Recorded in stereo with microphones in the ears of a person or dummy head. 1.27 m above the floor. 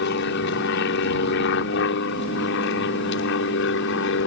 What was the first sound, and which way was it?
An aircraft, 60° left (ahead or behind).